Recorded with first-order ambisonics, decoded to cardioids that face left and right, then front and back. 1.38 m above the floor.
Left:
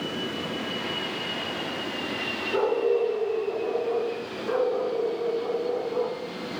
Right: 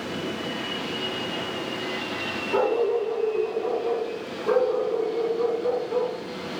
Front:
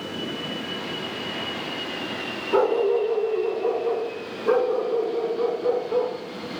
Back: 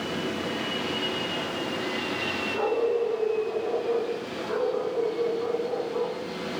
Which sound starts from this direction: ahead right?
A dog barking, at 2.5 s.